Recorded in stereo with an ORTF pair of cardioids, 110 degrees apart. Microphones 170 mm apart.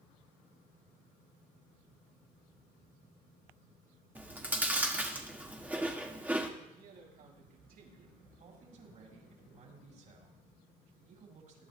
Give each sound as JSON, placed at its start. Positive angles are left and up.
{"t": 4.2, "sound": "chewing", "azimuth_deg": -10, "distance_m": 1.7}
{"t": 6.6, "sound": "a man speaking", "azimuth_deg": -65, "distance_m": 6.5}
{"t": 8.4, "sound": "a man speaking", "azimuth_deg": -50, "distance_m": 5.5}